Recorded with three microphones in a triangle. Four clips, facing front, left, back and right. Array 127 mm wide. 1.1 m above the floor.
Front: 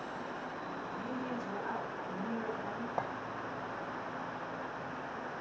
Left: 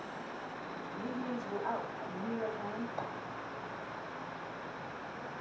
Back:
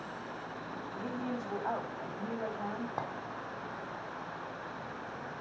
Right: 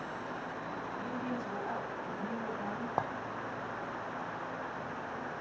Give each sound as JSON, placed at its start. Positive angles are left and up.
{"t": 0.9, "sound": "a woman speaking", "azimuth_deg": 170, "distance_m": 6.5}
{"t": 3.0, "sound": "a clink", "azimuth_deg": -85, "distance_m": 1.4}